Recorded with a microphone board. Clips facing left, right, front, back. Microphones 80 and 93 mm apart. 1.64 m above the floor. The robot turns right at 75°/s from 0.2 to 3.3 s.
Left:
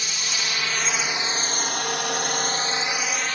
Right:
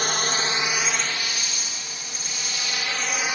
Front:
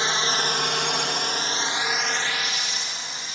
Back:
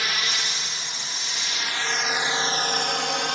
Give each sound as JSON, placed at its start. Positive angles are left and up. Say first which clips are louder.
{"t": 0.0, "sound": "a drone", "louder": "right 6 dB, front 5 dB", "azimuth_deg": -60}